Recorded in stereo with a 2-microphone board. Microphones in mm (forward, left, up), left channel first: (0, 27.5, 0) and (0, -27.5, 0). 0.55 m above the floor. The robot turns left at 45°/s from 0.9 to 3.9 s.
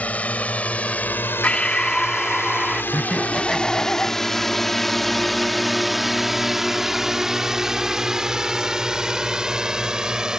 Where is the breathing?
50° left; by 2.8 s 15° right.